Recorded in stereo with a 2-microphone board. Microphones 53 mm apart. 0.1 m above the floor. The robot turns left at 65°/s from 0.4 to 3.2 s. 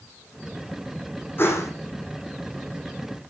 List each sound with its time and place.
1.4 s a whoosh: 45° left (ahead or behind), 4.5 m; by 1.7 s 60° left (ahead or behind), 4.5 m